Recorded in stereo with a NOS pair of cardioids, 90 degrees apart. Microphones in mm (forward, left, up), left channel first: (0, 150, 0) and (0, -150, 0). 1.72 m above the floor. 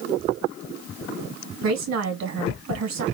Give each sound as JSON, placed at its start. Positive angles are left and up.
{"t": 1.6, "sound": "a woman speaking", "azimuth_deg": -65, "distance_m": 2.5}